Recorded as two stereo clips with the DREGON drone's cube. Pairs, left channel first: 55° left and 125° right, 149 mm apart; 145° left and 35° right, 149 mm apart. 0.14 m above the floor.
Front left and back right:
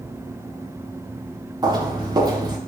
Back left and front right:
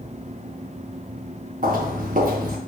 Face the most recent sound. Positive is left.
turn(degrees=-60)